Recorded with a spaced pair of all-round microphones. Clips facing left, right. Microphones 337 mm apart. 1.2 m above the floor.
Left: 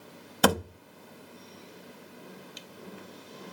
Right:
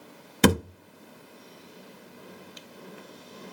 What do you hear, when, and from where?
0.4 s a thud: 35° right (ahead or behind), 0.6 m